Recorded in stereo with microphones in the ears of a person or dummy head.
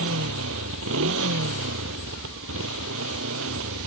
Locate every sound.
0.0 s a motorcycle: 75° right (ahead or behind)